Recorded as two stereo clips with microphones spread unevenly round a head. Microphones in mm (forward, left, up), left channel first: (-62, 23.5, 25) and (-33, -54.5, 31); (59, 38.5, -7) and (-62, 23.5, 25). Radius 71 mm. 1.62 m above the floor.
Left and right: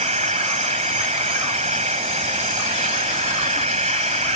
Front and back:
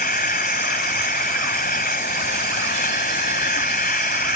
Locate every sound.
0.0 s an insect: 35° right